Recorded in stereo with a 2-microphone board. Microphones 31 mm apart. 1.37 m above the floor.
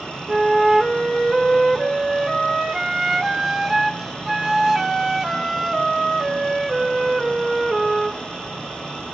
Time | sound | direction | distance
0.3 | a flute | 10° right (ahead or behind) | 1.1 m